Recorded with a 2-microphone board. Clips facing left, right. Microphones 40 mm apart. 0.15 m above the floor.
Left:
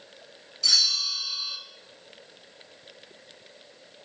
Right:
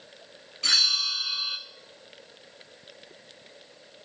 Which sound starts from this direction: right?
A bell, at 0.6 s.